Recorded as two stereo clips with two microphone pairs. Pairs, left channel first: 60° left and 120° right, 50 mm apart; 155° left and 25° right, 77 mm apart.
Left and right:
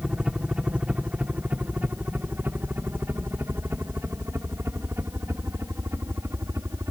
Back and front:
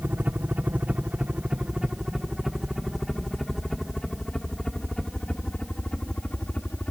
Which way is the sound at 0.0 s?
65° right.